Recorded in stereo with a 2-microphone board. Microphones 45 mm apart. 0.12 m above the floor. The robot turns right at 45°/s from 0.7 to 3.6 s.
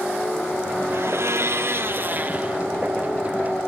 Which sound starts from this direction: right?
A blender, at 0.9 s.